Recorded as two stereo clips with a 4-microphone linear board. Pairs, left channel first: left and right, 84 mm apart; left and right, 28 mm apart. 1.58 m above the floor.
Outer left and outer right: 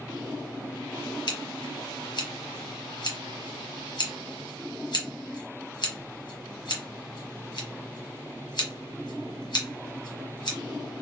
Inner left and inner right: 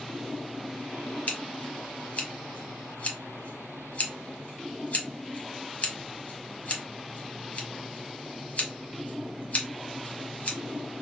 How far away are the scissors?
About 1.0 m.